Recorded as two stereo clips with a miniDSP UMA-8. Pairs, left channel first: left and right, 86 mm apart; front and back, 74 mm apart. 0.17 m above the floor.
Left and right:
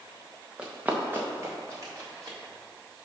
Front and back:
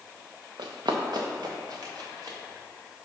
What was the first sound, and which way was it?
Running footsteps, 170° right.